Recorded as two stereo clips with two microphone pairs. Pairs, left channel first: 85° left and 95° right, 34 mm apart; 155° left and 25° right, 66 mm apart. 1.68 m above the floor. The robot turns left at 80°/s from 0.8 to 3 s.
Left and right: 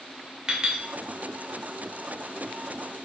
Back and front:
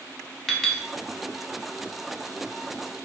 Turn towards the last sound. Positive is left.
turn(degrees=60)